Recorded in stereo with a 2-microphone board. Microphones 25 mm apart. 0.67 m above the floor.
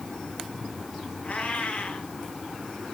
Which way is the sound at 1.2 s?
65° left (ahead or behind).